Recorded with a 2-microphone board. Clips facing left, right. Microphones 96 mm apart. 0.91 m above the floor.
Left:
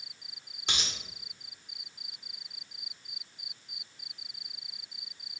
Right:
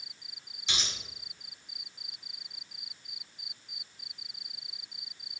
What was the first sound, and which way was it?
A dropped coin, 55° left (ahead or behind).